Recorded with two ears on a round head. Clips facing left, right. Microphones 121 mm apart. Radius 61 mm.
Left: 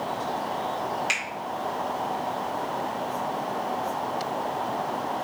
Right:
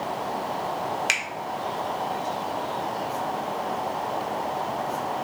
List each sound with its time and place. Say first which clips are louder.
1.1 s a finger snap: right 1 dB; 65° right (ahead or behind), 1.2 m